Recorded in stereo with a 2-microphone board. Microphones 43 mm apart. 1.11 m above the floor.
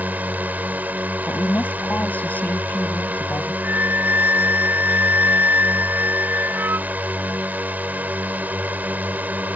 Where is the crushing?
I don't hear crushing.